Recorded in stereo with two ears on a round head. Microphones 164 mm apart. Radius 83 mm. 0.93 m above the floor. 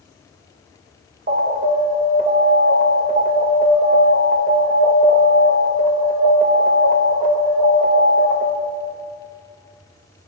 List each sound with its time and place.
1.3 s an alarm: 50° right (ahead or behind), 2.5 m